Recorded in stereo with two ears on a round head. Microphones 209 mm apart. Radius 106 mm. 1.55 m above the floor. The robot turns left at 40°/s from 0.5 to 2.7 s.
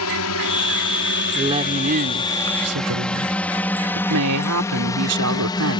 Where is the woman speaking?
15° right; by 5.8 s 70° right.